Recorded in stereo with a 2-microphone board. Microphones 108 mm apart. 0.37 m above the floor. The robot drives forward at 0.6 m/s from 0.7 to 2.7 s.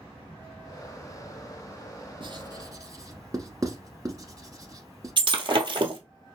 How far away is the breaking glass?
About 0.8 m.